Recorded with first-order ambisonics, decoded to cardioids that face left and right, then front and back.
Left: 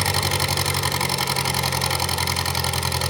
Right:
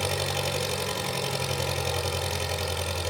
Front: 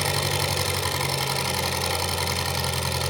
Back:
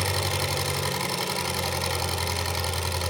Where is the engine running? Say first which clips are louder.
Left 6 dB, front 2 dB; 80° left, 6 m.